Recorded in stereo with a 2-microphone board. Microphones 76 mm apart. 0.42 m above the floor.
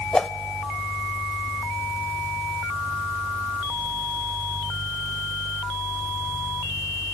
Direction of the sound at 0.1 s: 10° left (ahead or behind).